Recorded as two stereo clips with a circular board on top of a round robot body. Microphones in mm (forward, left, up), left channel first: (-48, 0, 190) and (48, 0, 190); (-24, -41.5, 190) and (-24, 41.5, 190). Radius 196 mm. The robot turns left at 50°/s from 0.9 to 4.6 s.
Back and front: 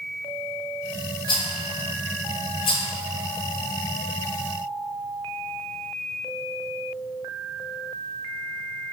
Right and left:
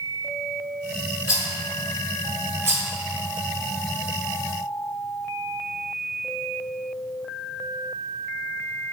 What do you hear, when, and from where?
1.3 s a rattle: 140° right, 0.8 m; by 2.9 s 140° left, 0.8 m